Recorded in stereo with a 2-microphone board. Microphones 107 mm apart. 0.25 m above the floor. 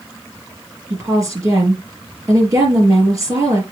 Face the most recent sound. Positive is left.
turn(degrees=-30)  # may be behind; listen again after turning